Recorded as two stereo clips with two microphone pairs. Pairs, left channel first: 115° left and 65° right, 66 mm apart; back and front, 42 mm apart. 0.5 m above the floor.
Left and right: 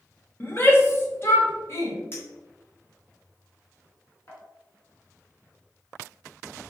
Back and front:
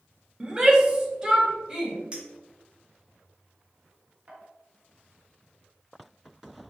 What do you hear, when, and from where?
0.4 s a shout: 65° left, 1.5 m; by 2.0 s 70° left, 3 m
2.1 s a clink: 65° left, 2.5 m